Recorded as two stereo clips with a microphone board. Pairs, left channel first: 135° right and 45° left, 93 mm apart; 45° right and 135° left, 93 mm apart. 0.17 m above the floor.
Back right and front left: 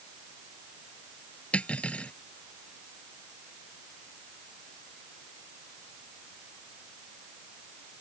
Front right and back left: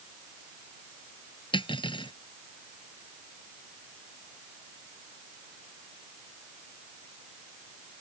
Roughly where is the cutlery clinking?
Ahead right.